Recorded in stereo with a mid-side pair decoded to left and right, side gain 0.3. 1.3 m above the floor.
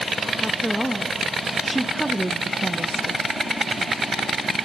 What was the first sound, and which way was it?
A woman speaking, 5° left.